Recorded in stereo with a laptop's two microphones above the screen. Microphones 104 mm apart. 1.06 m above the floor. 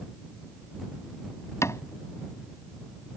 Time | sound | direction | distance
1.6 | a cupboard door | 25° left (ahead or behind) | ?